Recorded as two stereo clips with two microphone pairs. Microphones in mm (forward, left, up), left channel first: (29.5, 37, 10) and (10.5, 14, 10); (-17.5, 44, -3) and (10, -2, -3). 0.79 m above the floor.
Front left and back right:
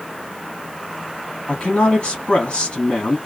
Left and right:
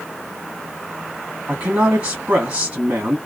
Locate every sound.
1.5 s a man speaking: 5° right, 1.7 m